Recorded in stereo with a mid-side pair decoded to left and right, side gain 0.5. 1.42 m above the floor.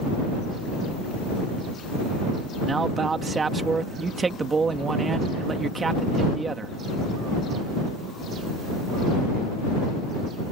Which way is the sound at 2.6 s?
30° right.